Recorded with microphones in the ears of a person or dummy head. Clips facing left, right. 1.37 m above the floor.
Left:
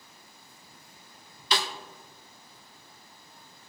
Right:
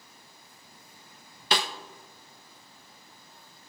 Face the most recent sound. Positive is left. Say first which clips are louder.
# right 1 dB
turn(degrees=-50)  # may be behind; listen again after turning